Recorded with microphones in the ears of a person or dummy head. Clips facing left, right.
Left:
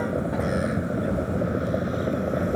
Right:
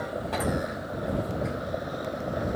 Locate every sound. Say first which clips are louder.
0.0 s a vehicle: left 4 dB; 35° left (ahead or behind)